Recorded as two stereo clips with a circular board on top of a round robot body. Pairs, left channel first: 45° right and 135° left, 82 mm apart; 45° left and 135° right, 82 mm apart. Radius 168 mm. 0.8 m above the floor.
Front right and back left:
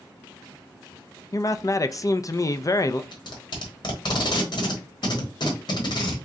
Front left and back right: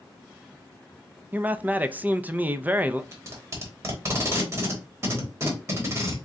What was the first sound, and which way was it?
A man speaking, 70° right.